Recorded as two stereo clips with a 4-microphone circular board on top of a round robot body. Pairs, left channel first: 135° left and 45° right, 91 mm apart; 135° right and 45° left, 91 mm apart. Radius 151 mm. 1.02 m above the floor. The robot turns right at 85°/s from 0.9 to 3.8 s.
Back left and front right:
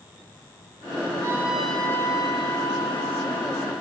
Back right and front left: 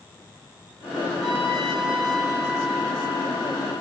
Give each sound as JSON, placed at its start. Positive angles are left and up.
{"t": 1.2, "sound": "a trumpet", "azimuth_deg": 10, "distance_m": 8.0}